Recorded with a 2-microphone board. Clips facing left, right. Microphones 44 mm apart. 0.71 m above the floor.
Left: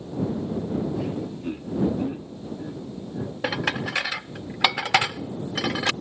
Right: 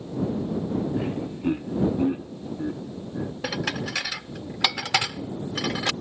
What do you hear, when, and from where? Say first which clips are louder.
0.9 s laughter: right 1 dB; 30° right (ahead or behind); by 3.3 s 25° right (ahead or behind)
3.4 s dishes clattering: left 4 dB; 20° left (ahead or behind)